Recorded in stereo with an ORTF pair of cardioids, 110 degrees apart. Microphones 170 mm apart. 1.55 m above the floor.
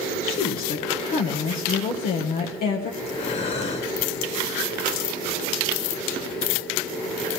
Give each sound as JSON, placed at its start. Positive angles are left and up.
{"t": 0.2, "sound": "a woman speaking", "azimuth_deg": 65, "distance_m": 1.1}
{"t": 3.0, "sound": "breathing", "azimuth_deg": 40, "distance_m": 1.7}